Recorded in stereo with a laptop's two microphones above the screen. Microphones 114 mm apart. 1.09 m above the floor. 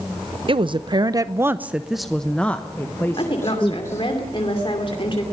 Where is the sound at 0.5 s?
50° right (ahead or behind), 0.8 m; by 4.0 s 25° left (ahead or behind), 1.9 m.